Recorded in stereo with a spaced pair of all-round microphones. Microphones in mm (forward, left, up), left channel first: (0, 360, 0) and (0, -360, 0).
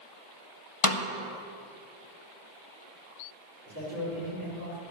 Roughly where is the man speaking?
Right.